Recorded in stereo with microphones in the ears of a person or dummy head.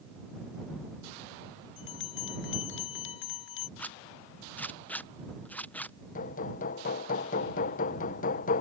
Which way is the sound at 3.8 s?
5° left (ahead or behind).